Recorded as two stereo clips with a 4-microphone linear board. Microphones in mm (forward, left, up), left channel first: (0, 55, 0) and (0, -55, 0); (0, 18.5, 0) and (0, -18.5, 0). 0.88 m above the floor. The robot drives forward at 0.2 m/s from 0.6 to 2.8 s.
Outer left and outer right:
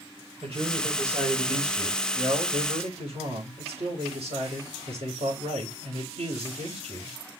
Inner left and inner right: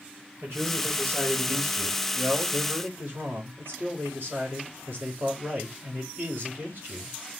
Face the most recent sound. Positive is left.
turn(degrees=-65)  # may be behind; listen again after turning